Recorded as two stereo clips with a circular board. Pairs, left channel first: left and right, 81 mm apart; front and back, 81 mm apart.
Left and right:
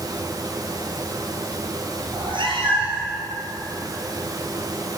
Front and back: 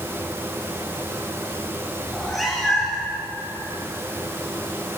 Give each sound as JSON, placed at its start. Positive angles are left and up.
{"t": 2.1, "sound": "a cat meowing", "azimuth_deg": -90, "distance_m": 2.0}